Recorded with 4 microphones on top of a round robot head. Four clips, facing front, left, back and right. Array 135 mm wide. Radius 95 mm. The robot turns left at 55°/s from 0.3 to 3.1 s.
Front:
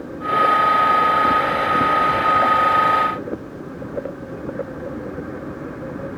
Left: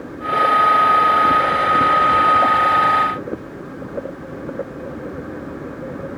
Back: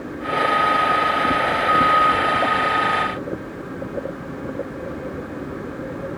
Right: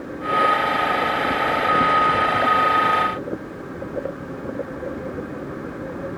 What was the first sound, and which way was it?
Only background noise.